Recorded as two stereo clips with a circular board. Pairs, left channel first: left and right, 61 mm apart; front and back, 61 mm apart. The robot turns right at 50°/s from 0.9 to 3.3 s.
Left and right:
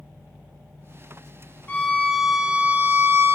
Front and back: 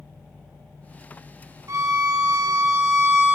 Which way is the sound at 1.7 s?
155° left.